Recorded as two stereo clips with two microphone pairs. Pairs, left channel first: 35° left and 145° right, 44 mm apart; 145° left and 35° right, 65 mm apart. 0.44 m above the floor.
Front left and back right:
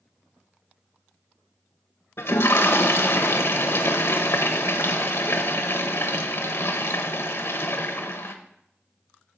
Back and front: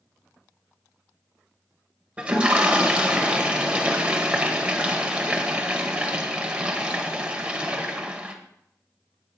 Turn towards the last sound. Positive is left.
turn(degrees=40)